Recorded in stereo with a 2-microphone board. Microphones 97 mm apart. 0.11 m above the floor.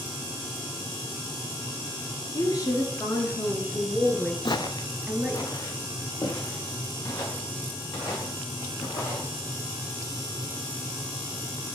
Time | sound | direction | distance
2.3 | a woman speaking | 40° left (ahead or behind) | 1.6 m
4.5 | footsteps | 50° left (ahead or behind) | 0.7 m